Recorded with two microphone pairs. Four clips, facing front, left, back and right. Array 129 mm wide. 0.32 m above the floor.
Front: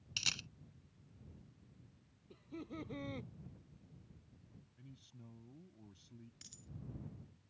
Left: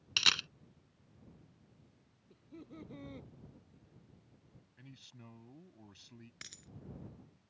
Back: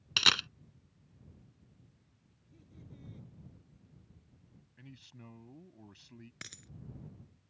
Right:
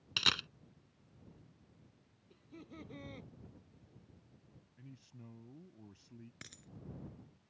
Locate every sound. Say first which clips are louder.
0.2 s a camera shutter: even, back 16 dB; 175° left
2.3 s laughter: left 1 dB, front 14 dB; 15° right
4.8 s a man speaking: right 1 dB, back 6 dB; 140° left
6.4 s a dropped coin: right 1 dB, back 9 dB; 175° left